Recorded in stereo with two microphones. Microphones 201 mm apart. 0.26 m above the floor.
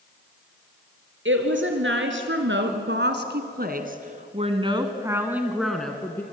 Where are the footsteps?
No footsteps in this recording.